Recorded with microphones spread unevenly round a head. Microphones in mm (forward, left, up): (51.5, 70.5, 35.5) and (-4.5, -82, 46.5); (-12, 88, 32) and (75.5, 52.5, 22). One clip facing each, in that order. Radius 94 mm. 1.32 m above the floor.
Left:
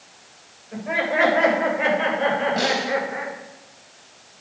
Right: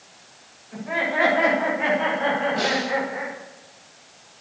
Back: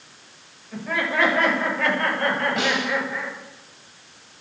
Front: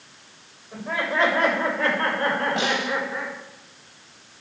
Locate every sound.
0.7 s laughter: 30° left, 7 m; by 3.4 s 35° left, 6 m
2.6 s a snare drum: 40° left, 6 m